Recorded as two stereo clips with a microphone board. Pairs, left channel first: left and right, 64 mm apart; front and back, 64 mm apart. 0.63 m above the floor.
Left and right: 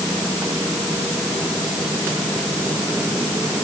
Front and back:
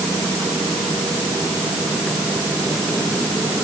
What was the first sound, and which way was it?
Only background noise.